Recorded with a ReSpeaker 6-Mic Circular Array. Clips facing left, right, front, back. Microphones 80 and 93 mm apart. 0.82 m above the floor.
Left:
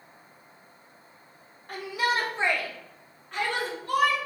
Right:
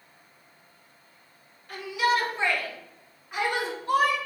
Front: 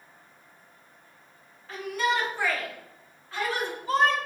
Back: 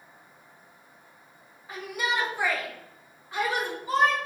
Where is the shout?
105° left, 1.1 m; by 4.2 s 110° right, 1.0 m.